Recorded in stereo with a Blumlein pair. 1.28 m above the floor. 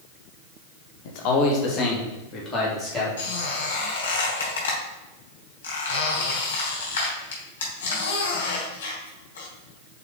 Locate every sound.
1.1 s a man speaking: 50° left, 1.4 m; by 3.1 s 15° left, 3.5 m
3.2 s a squeak: 60° left, 3 m